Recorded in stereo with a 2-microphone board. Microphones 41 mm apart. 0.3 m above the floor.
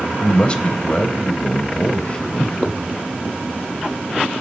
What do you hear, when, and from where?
0.2 s a man speaking: 30° left (ahead or behind), 1.1 m